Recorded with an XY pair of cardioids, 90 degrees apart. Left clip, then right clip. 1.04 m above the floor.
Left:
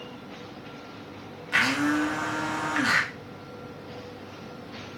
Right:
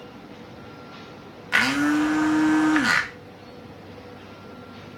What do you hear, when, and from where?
1.5 s a blender: 50° right, 0.7 m